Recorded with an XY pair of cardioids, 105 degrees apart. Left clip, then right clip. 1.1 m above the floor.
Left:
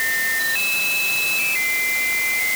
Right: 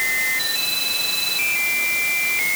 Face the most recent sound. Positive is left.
No sound to turn to.